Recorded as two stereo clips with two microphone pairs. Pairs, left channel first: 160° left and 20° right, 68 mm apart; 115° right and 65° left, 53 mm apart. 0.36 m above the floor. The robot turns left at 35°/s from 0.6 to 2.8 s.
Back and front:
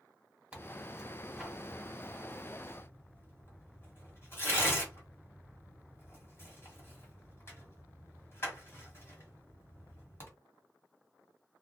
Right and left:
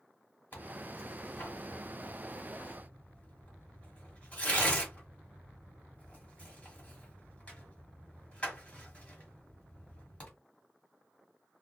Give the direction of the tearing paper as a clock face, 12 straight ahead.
3 o'clock.